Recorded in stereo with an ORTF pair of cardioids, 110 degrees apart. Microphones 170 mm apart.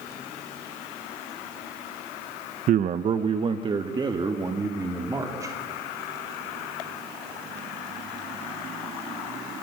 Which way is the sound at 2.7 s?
50° right.